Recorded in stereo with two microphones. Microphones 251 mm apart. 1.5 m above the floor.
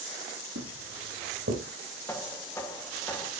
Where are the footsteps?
75° right (ahead or behind), 5.5 m; by 1.6 s 70° right (ahead or behind), 5.5 m.